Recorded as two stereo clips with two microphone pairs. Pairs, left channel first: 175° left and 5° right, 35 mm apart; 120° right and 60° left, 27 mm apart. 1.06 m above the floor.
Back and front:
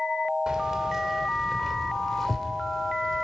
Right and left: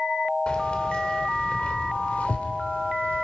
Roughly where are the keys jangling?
Right.